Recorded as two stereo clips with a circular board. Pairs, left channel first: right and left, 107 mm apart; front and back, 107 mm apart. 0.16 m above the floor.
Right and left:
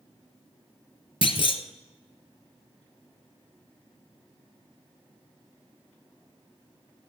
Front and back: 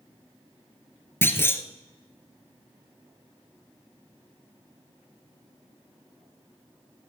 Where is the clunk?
65° right, 0.9 m.